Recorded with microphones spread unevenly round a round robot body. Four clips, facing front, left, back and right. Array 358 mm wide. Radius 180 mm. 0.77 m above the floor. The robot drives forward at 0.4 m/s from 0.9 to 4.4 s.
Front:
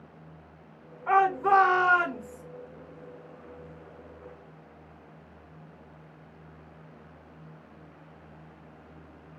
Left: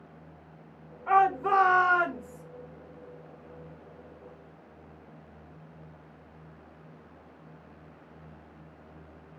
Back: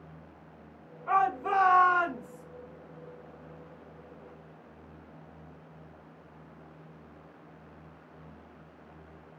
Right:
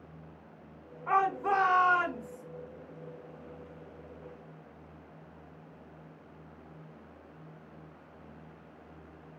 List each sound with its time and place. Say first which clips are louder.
1.1 s a shout: left 5 dB, front 5 dB; 20° left, 3.5 m; by 2.4 s 25° left, 3 m